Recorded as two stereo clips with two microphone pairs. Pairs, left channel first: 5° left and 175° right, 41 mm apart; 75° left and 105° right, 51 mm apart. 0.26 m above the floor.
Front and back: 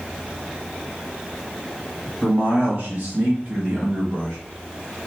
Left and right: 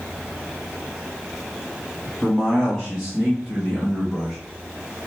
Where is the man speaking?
165° left, 1.5 m; by 4.4 s 145° left, 2.5 m.